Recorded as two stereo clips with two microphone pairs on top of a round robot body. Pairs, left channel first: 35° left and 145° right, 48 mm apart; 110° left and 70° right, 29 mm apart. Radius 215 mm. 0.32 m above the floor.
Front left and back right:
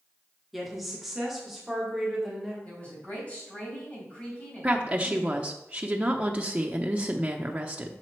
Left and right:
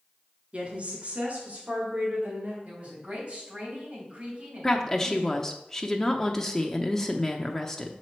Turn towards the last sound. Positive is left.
turn(degrees=175)